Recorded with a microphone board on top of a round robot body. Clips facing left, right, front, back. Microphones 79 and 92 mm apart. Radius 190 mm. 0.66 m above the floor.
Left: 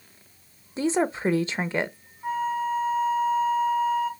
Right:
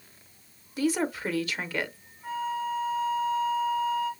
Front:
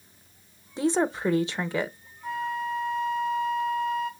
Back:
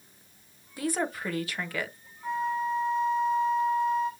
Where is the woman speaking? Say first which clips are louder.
Left 3 dB, front 6 dB; 50° left, 0.8 m.